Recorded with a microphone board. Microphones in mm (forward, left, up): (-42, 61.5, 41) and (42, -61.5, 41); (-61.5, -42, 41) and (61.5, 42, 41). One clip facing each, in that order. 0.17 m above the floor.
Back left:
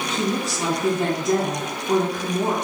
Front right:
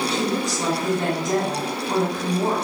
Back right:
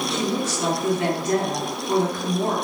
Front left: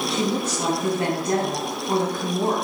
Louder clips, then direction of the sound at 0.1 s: Front right 1 dB, front left 1 dB; 35° left.